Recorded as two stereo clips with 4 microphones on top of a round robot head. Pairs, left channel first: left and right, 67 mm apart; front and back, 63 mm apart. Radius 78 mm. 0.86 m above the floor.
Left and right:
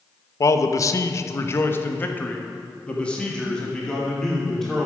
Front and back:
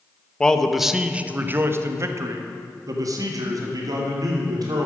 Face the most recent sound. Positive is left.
turn(degrees=175)